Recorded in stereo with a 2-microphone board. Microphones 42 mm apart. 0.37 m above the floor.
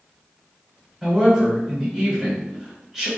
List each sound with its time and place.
1.0 s a woman speaking: 20° right (ahead or behind), 1.4 m